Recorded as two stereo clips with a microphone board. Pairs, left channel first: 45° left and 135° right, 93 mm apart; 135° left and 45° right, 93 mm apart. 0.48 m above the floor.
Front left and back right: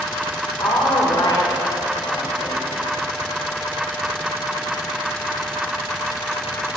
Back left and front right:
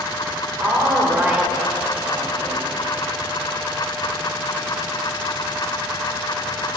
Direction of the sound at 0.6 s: 15° left.